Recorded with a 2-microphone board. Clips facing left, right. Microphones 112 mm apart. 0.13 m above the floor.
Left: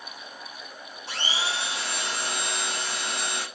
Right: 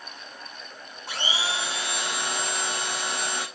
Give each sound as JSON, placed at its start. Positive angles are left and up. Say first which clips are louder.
{"t": 1.1, "sound": "a blender", "louder": "right 1 dB", "side_deg": -50, "distance_m": 1.5}